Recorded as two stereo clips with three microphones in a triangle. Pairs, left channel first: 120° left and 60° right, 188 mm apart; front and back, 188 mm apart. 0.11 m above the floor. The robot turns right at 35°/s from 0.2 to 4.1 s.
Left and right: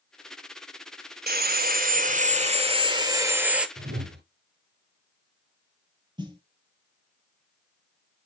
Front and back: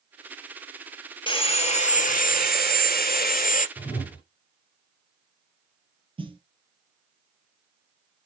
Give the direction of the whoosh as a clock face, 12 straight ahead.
3 o'clock.